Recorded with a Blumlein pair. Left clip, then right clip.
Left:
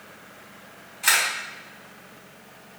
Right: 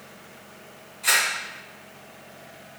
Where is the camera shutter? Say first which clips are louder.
Left 1 dB; 65° left, 1.7 m.